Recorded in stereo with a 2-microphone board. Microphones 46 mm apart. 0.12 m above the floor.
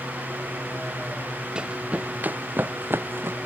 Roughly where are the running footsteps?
Centre.